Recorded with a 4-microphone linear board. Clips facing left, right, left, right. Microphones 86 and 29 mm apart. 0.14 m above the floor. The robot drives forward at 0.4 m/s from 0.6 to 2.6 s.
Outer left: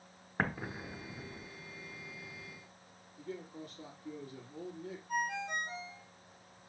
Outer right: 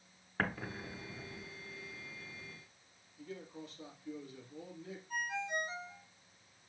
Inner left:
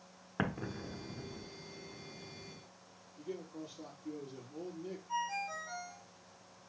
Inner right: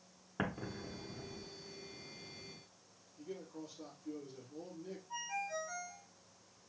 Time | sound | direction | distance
0.4 | an explosion | 15° left (ahead or behind) | 0.7 m
3.2 | a man speaking | 40° left (ahead or behind) | 3.5 m
5.1 | a ringtone | 60° left (ahead or behind) | 2.5 m